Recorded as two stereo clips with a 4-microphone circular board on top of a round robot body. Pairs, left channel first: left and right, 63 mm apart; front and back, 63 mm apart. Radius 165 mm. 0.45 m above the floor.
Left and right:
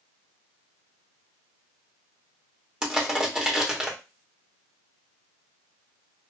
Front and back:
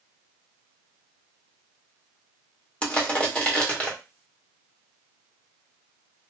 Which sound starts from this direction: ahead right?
Crushing, at 2.8 s.